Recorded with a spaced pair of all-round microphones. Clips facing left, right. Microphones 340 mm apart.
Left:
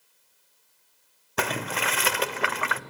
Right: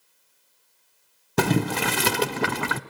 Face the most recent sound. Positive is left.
turn(degrees=-50)  # may be behind; listen again after turning